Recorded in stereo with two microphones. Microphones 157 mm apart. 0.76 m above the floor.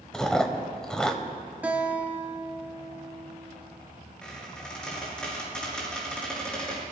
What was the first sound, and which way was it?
Chewing, 5° left (ahead or behind).